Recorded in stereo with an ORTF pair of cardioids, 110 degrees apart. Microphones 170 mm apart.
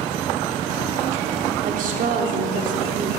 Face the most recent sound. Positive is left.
turn(degrees=-50)